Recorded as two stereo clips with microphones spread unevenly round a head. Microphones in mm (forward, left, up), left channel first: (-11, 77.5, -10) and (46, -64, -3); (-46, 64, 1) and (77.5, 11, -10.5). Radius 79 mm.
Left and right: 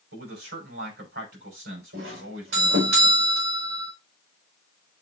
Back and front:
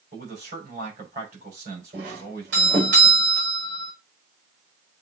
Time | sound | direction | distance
0.1 | a man speaking | 70° right | 5.5 m
1.9 | a doorbell | 70° right | 4.5 m